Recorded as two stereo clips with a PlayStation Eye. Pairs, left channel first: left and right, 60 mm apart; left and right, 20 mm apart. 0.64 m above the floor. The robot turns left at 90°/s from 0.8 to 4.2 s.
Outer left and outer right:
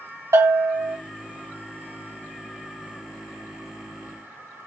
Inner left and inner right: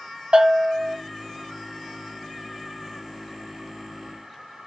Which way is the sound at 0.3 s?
65° right (ahead or behind).